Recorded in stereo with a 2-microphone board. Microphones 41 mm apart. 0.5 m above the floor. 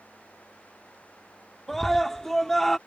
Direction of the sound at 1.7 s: 10° left (ahead or behind).